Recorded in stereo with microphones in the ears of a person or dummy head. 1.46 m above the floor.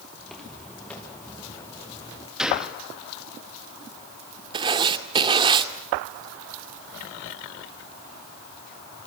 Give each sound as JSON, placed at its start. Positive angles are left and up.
{"t": 0.2, "sound": "footsteps", "side_deg": 5, "distance_m": 5.0}
{"t": 2.4, "sound": "a gunshot", "side_deg": 0, "distance_m": 3.0}
{"t": 4.5, "sound": "writing", "side_deg": -25, "distance_m": 1.8}